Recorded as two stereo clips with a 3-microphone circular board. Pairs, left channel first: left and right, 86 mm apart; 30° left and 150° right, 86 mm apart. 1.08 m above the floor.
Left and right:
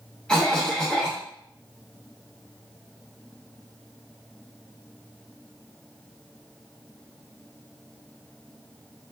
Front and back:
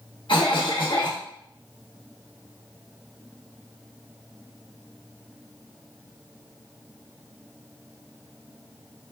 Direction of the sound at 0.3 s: 10° left.